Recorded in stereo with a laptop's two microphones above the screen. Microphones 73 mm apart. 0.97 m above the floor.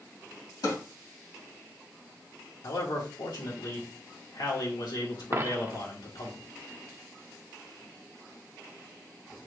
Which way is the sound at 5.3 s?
35° right (ahead or behind).